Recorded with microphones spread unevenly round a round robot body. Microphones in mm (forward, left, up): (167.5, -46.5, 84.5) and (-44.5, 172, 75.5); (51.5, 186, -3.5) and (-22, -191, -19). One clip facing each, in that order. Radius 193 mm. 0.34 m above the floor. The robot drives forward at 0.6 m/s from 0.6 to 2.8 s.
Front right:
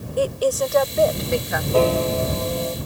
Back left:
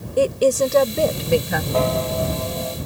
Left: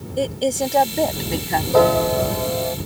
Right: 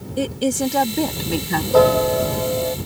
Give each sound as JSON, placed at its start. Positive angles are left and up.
{"t": 0.2, "sound": "a woman speaking", "azimuth_deg": -170}
{"t": 1.7, "sound": "a piano", "azimuth_deg": -110}